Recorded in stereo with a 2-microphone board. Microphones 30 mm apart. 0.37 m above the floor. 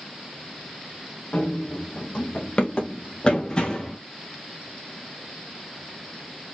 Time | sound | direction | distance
1.3 | running footsteps | 50° left (ahead or behind) | 3 m